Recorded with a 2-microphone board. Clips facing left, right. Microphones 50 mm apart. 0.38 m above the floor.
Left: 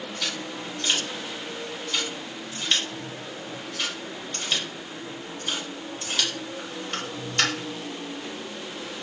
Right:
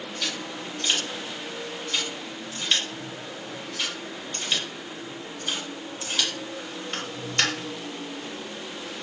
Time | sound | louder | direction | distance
0.2 | scissors | even | centre (ahead or behind) | 1.6 m